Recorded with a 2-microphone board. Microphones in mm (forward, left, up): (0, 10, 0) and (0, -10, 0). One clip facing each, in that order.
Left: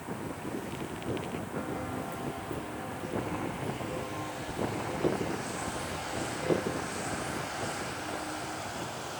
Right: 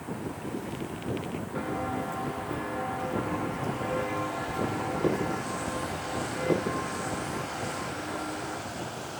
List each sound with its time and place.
1.6 s footsteps: 25° right (ahead or behind), 2.5 m; by 8.6 s 75° right (ahead or behind), 5 m